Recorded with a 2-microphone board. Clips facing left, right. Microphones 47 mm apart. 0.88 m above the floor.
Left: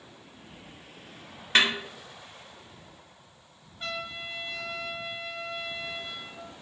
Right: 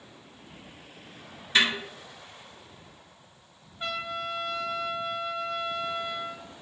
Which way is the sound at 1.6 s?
55° left (ahead or behind).